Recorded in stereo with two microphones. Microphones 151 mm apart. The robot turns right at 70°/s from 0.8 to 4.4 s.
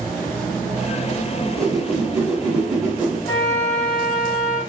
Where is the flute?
125° left, 1.4 m; by 4.6 s 155° right, 1.4 m.